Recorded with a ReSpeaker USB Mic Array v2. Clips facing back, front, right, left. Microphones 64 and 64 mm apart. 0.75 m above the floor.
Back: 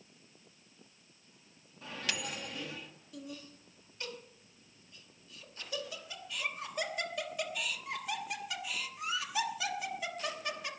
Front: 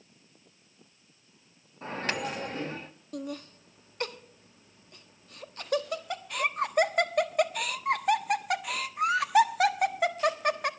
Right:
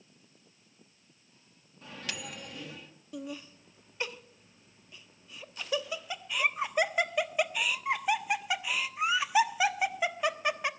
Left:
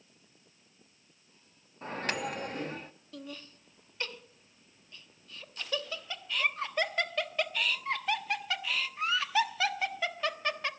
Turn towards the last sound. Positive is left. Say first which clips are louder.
# front 9 dB, right 5 dB
turn(degrees=-15)